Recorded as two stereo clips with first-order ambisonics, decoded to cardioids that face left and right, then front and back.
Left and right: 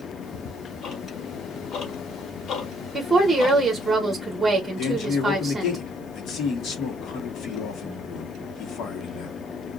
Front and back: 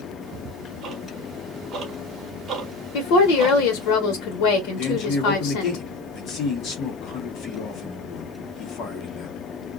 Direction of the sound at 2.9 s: 10° right.